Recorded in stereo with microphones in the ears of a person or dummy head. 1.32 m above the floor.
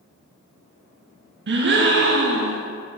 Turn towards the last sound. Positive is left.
turn(degrees=-50)  # may be behind; listen again after turning